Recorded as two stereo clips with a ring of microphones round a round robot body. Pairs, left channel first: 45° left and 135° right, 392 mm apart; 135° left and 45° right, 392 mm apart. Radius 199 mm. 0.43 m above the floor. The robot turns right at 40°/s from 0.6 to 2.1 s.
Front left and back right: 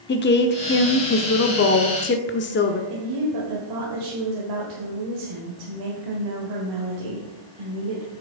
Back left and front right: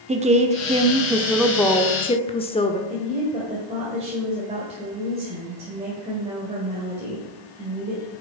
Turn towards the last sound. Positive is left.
turn(degrees=-120)